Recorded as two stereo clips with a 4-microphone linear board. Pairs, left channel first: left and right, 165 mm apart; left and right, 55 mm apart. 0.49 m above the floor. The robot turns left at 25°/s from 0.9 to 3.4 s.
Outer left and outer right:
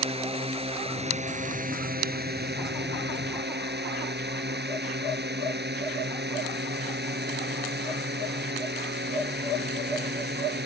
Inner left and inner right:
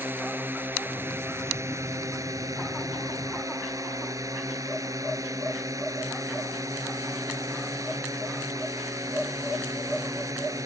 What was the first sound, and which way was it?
A drone, 35° right.